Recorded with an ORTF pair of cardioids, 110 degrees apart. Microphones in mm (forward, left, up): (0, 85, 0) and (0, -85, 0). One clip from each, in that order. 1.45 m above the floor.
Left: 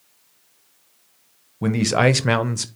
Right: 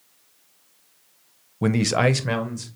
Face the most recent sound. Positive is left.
turn(degrees=55)